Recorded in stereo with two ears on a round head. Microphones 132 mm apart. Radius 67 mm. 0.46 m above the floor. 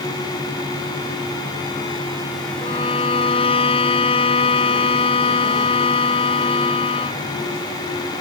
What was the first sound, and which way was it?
A violin, 40° left (ahead or behind).